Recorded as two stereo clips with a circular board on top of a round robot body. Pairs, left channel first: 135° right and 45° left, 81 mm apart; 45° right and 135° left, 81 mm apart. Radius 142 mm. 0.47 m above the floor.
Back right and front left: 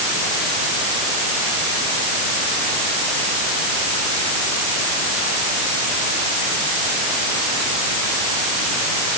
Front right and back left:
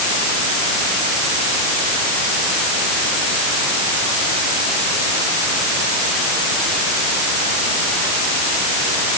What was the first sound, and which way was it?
Only background noise.